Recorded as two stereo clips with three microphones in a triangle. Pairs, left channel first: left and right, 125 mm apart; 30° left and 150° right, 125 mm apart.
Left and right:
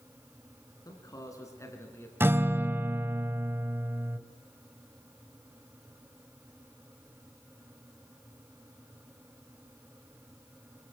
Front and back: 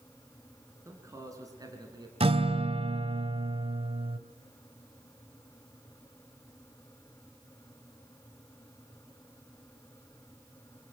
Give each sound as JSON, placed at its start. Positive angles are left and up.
{"t": 0.8, "sound": "a man speaking", "azimuth_deg": 145, "distance_m": 3.5}
{"t": 2.2, "sound": "a guitar", "azimuth_deg": -155, "distance_m": 1.1}